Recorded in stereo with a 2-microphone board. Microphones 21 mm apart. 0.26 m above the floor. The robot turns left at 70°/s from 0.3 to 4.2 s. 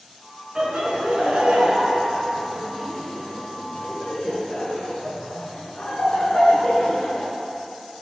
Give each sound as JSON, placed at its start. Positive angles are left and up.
{"t": 0.6, "sound": "laughter", "side_deg": -35, "distance_m": 3.5}